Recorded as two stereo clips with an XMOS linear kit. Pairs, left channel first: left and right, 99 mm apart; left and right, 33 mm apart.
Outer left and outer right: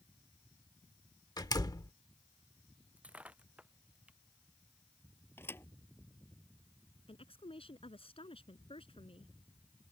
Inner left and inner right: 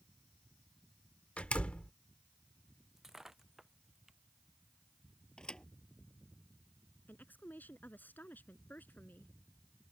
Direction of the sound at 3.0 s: 15° right (ahead or behind).